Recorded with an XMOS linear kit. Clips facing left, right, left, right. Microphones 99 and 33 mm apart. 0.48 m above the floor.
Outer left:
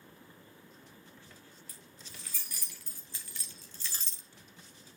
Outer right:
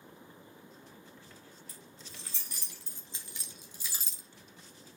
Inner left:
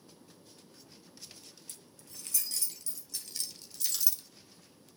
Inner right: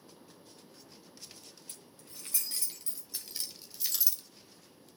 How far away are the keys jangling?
About 4.5 m.